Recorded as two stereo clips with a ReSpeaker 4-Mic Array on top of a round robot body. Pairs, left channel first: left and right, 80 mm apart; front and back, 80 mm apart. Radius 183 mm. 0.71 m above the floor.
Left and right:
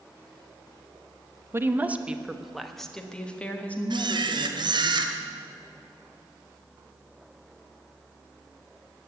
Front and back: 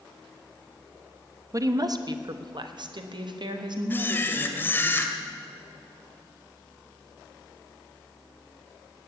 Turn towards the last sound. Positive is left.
turn(degrees=-65)